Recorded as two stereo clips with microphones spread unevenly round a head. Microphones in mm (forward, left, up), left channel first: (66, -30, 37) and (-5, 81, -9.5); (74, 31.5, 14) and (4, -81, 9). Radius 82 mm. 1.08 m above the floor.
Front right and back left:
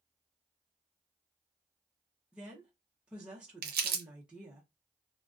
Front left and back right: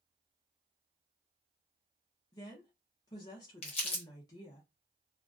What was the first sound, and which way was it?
A woman speaking, 90° left.